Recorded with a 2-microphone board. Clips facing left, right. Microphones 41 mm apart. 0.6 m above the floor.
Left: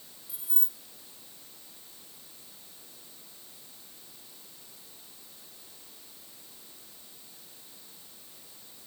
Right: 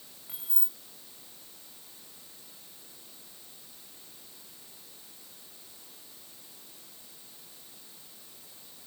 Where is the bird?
I don't hear a bird.